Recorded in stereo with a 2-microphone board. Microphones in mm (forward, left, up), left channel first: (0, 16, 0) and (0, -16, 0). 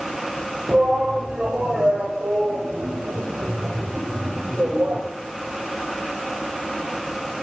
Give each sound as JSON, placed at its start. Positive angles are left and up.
{"t": 0.7, "sound": "a shout", "side_deg": -40, "distance_m": 8.0}